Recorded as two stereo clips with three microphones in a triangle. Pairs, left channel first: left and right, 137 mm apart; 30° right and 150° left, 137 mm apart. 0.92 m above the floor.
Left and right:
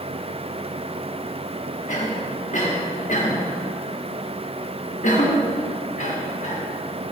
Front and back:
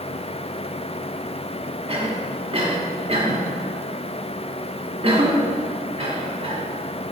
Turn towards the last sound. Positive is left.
turn(degrees=110)